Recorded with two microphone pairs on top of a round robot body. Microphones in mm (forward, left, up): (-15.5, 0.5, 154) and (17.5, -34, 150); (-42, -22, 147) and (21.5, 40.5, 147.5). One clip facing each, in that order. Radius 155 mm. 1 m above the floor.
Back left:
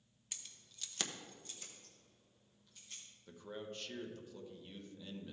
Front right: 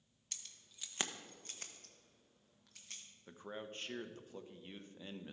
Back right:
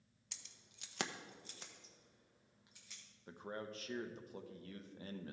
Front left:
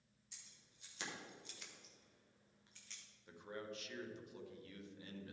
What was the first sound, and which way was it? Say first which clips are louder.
Keys jangling: back left 1 dB, back right 5 dB; 150° right.